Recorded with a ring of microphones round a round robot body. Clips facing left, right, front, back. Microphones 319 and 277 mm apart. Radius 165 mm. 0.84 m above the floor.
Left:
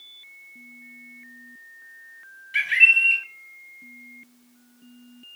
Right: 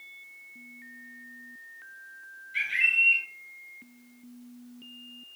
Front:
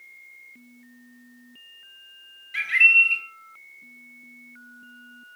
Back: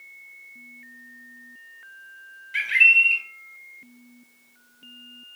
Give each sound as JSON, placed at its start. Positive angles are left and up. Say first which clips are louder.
{"t": 2.5, "sound": "a bird", "louder": "left 7 dB, even", "azimuth_deg": 90, "distance_m": 3.5}